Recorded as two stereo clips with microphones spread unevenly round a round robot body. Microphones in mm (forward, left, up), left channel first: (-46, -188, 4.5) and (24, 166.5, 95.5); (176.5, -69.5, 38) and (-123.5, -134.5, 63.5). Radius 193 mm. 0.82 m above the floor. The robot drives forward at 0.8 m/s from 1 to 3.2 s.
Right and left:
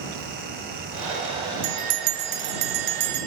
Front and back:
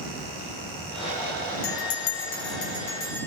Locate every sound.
1.6 s a bell: 45° left, 1.6 m; by 3.3 s 100° left, 1.2 m